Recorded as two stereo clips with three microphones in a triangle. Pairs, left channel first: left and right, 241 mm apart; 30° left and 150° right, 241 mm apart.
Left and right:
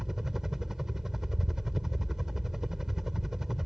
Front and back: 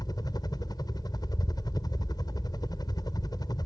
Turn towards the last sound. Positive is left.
turn(degrees=-5)